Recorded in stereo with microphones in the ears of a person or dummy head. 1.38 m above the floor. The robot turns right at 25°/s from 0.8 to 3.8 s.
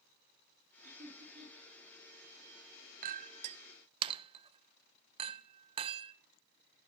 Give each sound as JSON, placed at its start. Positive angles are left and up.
{"t": 0.8, "sound": "laughter", "side_deg": -45, "distance_m": 9.0}
{"t": 3.0, "sound": "a clink", "side_deg": -45, "distance_m": 0.6}